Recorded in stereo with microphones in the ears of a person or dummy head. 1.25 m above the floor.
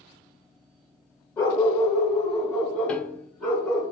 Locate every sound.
1.4 s a dog barking: 15° left (ahead or behind), 1.3 m; by 3.9 s 5° left (ahead or behind), 4.5 m
2.9 s a piano: 5° left (ahead or behind), 0.5 m